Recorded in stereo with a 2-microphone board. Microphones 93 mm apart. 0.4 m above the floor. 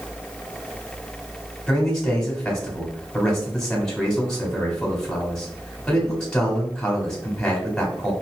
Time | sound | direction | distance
1.7 | a man speaking | 5° left (ahead or behind) | 1.7 m